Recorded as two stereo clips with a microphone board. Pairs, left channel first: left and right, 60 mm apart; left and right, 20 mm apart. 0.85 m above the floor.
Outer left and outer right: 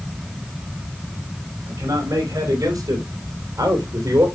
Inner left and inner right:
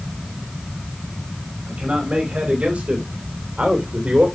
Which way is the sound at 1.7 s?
70° right (ahead or behind).